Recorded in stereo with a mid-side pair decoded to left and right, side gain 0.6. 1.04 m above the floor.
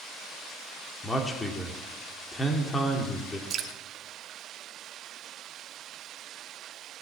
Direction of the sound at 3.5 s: 50° right.